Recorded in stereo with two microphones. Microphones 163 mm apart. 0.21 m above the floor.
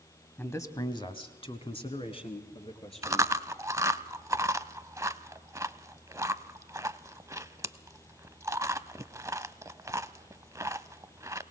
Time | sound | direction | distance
0.4 | a man speaking | 10° left (ahead or behind) | 1.0 m
3.0 | chewing | 20° right (ahead or behind) | 0.5 m